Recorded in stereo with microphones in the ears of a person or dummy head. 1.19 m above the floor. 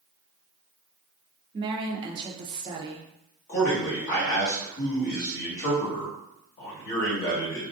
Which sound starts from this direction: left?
A man speaking, at 3.5 s.